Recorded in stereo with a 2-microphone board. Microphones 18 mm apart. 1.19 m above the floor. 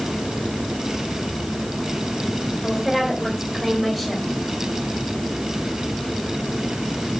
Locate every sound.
2.6 s a woman speaking: 5° right (ahead or behind), 4 m; by 4.2 s centre (ahead or behind), 5 m